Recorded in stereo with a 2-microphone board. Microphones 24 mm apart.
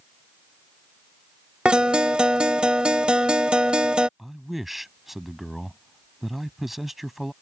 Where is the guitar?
50° right (ahead or behind).